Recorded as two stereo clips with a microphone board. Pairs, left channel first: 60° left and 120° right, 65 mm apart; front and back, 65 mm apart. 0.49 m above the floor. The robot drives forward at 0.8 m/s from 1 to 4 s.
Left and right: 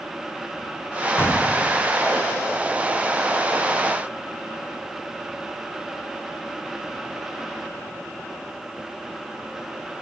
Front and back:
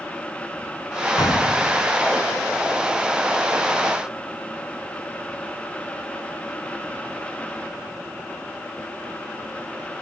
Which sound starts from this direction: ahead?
An explosion, at 1.2 s.